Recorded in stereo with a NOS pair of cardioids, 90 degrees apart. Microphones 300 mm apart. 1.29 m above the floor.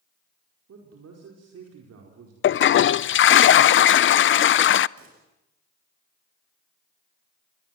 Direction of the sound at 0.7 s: 55° right.